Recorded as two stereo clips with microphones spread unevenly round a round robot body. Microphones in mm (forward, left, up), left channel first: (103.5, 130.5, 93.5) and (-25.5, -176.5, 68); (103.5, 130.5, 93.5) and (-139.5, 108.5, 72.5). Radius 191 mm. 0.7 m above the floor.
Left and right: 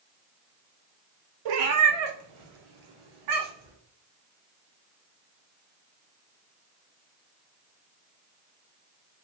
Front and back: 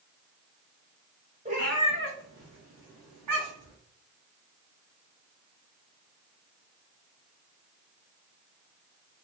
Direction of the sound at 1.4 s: 100° right.